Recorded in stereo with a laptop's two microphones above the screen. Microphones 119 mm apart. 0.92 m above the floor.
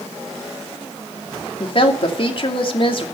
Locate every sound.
1.6 s a woman speaking: 50° left (ahead or behind), 2.5 m